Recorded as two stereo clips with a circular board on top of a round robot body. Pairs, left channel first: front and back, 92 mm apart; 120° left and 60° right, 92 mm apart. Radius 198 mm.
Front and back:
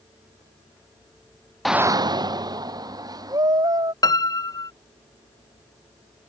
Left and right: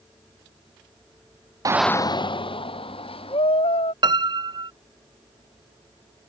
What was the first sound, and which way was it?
A shout, 85° right.